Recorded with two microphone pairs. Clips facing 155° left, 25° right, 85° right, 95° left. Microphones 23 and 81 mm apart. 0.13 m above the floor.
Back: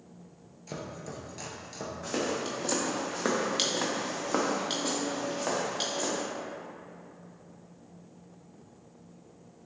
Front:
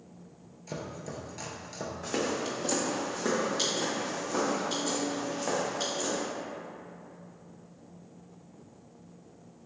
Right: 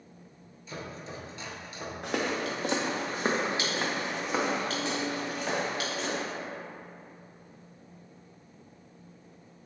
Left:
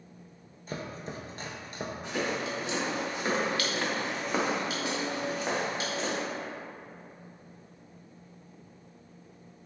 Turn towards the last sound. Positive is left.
turn(degrees=155)